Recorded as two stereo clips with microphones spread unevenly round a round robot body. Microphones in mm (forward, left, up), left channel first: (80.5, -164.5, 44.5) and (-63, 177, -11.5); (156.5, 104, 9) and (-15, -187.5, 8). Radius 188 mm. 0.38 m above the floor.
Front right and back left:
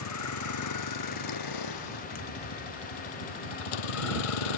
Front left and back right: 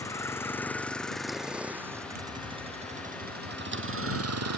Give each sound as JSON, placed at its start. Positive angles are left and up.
{"t": 0.0, "sound": "a vehicle", "azimuth_deg": -20}
{"t": 2.1, "sound": "a thud", "azimuth_deg": -120}